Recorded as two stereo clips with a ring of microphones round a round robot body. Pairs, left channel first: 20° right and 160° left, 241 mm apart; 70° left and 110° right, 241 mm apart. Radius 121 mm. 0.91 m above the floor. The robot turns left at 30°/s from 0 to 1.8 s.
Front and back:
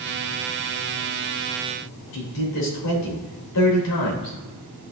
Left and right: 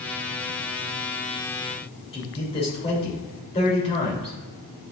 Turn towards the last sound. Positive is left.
turn(degrees=0)